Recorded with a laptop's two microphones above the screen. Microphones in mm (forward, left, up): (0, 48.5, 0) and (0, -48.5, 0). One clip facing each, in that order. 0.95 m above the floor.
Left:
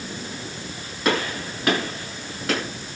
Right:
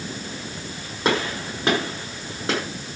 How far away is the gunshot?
About 8 m.